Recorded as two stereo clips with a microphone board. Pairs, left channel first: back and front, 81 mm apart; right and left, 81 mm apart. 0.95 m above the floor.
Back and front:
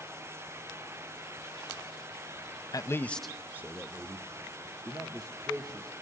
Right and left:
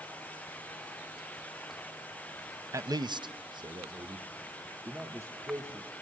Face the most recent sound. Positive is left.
turn(degrees=30)